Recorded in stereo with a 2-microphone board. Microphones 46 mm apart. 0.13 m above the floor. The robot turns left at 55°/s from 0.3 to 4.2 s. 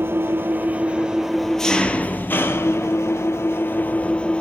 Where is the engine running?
120° right, 0.8 m; by 4.4 s 25° left, 0.8 m.